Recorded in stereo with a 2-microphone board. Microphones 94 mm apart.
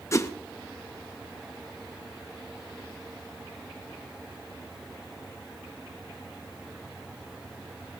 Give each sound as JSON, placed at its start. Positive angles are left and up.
{"t": 0.1, "sound": "a whoosh", "side_deg": 30, "distance_m": 0.6}